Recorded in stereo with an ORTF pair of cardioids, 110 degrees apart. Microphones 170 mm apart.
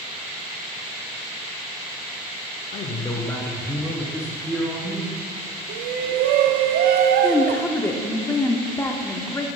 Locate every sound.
2.7 s a man speaking: 50° left, 0.8 m; by 5.1 s 20° right, 3 m
5.7 s a shout: 70° right, 0.6 m
7.2 s a woman speaking: 15° left, 0.7 m